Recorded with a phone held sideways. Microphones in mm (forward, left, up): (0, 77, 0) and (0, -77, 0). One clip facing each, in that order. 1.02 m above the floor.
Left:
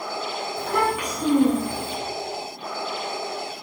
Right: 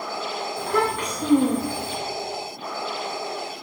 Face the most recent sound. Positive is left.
turn(degrees=30)  # may be behind; listen again after turning